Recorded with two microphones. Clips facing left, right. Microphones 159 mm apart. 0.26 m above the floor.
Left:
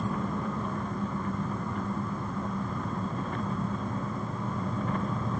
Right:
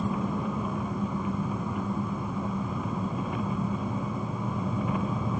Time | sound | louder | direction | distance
0.0 | an engine running | right 2 dB | 10° right (ahead or behind) | ?